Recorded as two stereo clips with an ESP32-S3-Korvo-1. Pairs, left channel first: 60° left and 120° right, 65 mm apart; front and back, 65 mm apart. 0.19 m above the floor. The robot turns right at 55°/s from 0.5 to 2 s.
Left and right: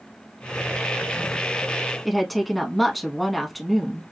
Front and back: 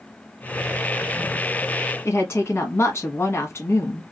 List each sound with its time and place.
2.0 s a woman speaking: 30° right, 1.4 m